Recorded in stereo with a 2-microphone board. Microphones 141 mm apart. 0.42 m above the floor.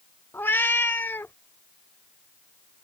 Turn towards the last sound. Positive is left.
turn(degrees=15)  # may be behind; listen again after turning